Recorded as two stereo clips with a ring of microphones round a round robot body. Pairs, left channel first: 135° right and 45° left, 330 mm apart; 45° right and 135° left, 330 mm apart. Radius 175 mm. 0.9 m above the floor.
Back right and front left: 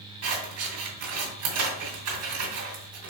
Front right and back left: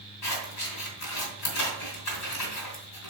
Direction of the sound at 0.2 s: Straight ahead.